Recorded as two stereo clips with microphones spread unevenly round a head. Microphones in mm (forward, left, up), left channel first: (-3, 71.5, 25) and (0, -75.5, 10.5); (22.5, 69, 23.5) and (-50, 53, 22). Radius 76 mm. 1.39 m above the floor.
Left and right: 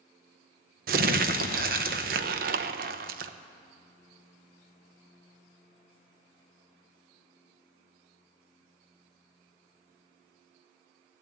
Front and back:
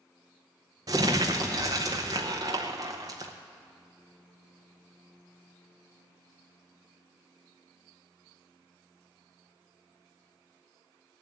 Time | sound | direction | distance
0.9 | crumpling | 110° right | 0.6 m